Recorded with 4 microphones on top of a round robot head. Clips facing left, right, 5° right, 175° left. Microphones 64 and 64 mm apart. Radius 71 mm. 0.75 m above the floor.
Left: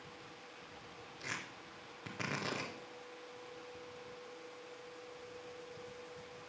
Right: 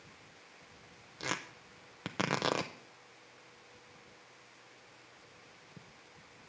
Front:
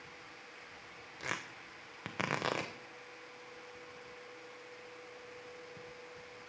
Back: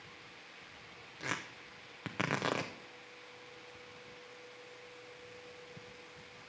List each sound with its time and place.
1.2 s tearing paper: 95° right, 0.6 m